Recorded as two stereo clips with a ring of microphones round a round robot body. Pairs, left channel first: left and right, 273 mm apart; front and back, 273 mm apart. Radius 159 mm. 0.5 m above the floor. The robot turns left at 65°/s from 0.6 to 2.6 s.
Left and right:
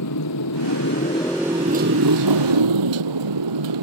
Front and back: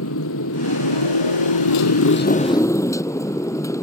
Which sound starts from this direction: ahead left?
A motorcycle, at 0.0 s.